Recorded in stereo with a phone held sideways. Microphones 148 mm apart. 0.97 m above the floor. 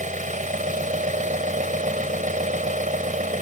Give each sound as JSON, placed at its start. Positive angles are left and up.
{"t": 0.0, "sound": "an engine running", "side_deg": -60}